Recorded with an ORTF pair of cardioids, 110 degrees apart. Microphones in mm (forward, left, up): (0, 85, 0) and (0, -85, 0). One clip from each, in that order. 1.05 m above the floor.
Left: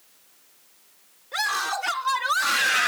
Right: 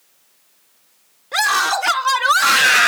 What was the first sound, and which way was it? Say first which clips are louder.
A scream: right 9 dB; 55° right.